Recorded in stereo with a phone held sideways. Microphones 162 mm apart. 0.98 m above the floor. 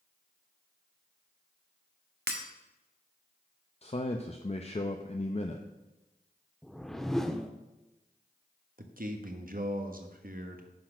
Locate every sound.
2.3 s breaking glass: 85° right, 1.0 m
3.8 s a man speaking: 40° left (ahead or behind), 0.6 m
6.6 s a whoosh: centre (ahead or behind), 0.7 m
8.8 s a man speaking: 60° right (ahead or behind), 1.1 m